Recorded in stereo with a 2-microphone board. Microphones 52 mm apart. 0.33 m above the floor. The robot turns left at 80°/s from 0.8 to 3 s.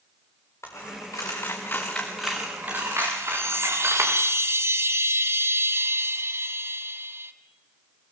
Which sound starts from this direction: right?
A chime, at 3.2 s.